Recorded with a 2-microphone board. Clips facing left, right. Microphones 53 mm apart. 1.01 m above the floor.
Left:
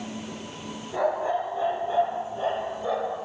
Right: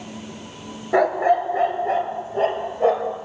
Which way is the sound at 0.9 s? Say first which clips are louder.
Right 8 dB; 80° right.